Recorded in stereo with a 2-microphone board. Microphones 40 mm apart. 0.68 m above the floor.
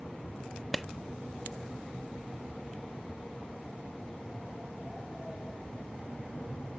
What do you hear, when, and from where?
0.7 s a clap: 5° left (ahead or behind)